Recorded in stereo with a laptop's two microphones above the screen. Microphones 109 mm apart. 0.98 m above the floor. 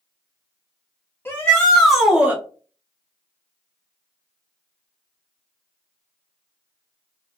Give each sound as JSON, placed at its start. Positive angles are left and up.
{"t": 1.2, "sound": "a shout", "side_deg": 15, "distance_m": 0.9}